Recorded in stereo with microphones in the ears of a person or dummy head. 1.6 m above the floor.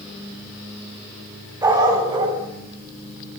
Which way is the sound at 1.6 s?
20° right (ahead or behind).